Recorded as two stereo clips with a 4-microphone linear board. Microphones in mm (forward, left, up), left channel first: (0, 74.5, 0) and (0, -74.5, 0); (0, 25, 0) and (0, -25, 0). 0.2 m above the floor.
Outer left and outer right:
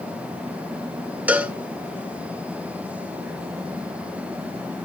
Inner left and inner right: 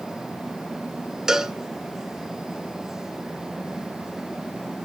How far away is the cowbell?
About 0.8 m.